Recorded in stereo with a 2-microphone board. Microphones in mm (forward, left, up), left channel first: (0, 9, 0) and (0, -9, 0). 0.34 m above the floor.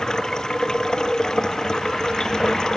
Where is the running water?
45° left (ahead or behind).